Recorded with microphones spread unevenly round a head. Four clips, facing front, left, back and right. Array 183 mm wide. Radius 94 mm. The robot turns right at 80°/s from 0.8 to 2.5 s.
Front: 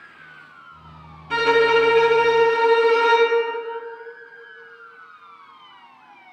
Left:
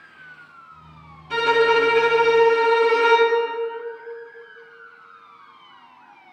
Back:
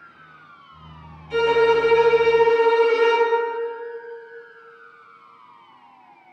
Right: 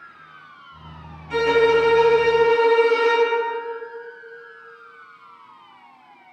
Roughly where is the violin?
Ahead.